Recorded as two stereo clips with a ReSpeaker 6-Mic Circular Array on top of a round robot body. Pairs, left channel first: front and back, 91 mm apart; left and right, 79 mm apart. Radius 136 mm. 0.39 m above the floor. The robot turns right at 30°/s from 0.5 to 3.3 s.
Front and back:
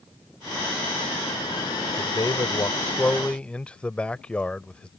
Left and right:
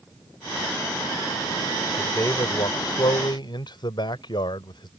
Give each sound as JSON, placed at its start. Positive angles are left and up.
{"t": 2.0, "sound": "a man speaking", "azimuth_deg": 35}